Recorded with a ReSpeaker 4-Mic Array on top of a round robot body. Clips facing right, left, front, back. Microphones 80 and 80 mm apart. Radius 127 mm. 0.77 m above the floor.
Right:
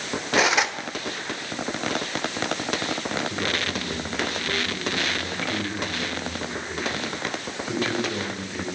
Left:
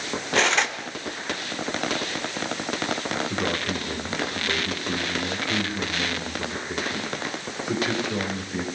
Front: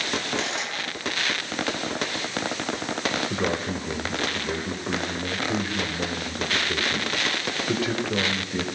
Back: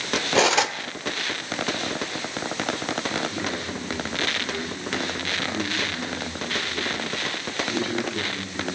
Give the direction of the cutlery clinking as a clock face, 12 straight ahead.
6 o'clock.